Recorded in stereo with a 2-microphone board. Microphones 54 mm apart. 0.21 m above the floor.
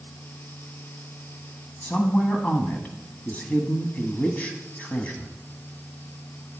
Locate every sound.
1.8 s a woman speaking: 30° left (ahead or behind), 1.2 m